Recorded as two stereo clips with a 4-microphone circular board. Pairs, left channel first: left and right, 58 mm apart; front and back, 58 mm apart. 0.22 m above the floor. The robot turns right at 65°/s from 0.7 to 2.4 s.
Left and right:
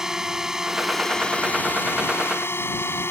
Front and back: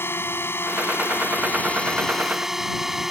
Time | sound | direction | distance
0.0 | a drone | 10° right | ?